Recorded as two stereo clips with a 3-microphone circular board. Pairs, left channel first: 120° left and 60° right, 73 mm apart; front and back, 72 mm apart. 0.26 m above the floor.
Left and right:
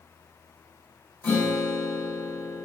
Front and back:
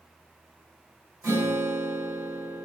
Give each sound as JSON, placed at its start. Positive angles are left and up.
{"t": 1.2, "sound": "a guitar", "azimuth_deg": 140, "distance_m": 1.7}